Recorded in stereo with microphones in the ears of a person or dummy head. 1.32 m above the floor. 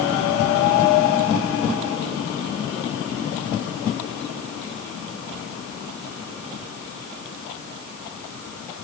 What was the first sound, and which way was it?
Only background noise.